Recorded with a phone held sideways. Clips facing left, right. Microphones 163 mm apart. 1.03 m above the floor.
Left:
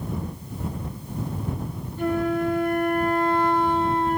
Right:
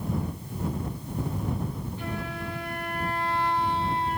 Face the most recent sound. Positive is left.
turn(degrees=45)  # may be behind; listen again after turning